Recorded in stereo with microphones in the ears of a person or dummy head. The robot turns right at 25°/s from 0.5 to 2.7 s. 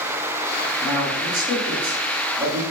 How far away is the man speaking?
About 1.5 m.